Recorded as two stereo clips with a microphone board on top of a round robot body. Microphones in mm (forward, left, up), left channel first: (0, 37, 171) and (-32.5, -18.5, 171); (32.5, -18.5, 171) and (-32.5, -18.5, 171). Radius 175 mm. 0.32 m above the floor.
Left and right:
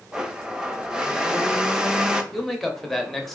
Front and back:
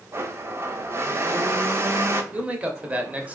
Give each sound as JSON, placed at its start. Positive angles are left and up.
{"t": 0.1, "sound": "a blender", "azimuth_deg": 165, "distance_m": 0.7}
{"t": 2.3, "sound": "a man speaking", "azimuth_deg": 145, "distance_m": 1.0}